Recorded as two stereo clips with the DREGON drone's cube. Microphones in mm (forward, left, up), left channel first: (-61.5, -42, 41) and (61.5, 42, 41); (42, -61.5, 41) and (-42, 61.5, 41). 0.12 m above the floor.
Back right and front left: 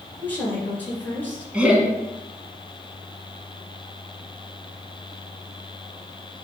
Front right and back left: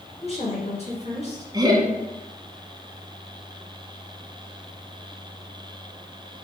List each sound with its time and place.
0.2 s a woman speaking: 70° right, 1.8 m
1.5 s laughter: 110° left, 1.2 m